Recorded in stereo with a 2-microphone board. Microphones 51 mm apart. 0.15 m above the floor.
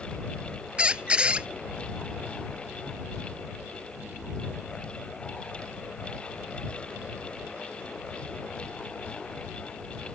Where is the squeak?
20° right (ahead or behind).